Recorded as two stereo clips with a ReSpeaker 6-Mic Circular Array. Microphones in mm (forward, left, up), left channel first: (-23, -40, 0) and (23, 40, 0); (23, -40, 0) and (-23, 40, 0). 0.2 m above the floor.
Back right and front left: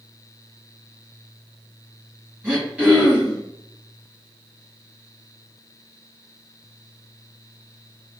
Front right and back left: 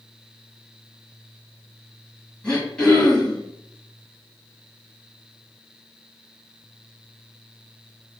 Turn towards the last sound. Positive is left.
turn(degrees=5)